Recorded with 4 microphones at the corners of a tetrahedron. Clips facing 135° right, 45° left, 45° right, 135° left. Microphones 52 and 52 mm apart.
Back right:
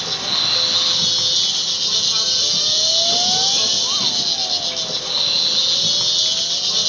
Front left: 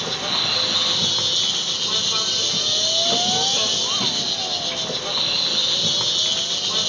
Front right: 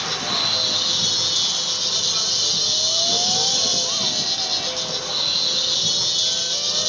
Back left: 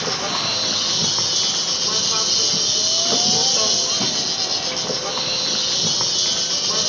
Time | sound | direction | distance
0.0 | an insect | 115° left | 0.7 m